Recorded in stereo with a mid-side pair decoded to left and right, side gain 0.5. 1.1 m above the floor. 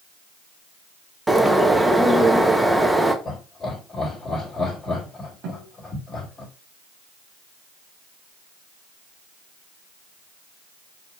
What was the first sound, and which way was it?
A bird, 10° right.